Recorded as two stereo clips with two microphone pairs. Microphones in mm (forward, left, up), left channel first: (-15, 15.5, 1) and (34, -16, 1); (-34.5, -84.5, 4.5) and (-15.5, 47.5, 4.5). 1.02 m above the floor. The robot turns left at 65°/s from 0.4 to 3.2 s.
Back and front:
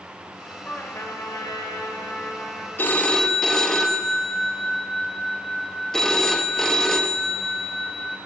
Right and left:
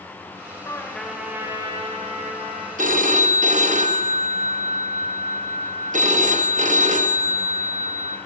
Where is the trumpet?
155° right, 1.6 m; by 2.7 s 70° left, 1.6 m.